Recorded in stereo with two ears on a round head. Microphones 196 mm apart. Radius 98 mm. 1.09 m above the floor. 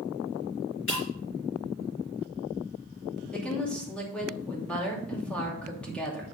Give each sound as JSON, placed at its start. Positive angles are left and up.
{"t": 0.9, "sound": "breaking glass", "side_deg": 65, "distance_m": 4.0}
{"t": 3.3, "sound": "a woman speaking", "side_deg": 5, "distance_m": 2.5}